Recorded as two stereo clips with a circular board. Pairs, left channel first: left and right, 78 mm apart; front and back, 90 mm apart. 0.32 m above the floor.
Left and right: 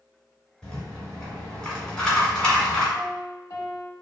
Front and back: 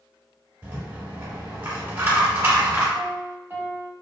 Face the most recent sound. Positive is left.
turn(degrees=120)